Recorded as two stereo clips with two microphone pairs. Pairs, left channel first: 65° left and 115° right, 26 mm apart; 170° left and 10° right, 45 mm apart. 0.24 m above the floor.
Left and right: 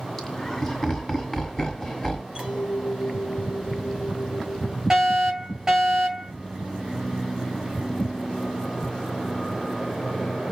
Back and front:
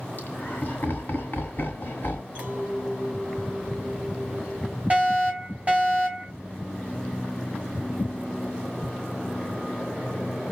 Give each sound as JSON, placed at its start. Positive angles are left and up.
{"t": 0.2, "sound": "laughter", "azimuth_deg": 145, "distance_m": 1.8}
{"t": 2.4, "sound": "a clink", "azimuth_deg": -65, "distance_m": 3.0}
{"t": 4.9, "sound": "a fire alarm", "azimuth_deg": -55, "distance_m": 3.0}